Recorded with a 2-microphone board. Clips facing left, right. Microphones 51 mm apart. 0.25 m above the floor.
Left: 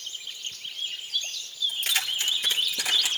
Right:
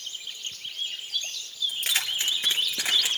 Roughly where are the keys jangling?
Centre.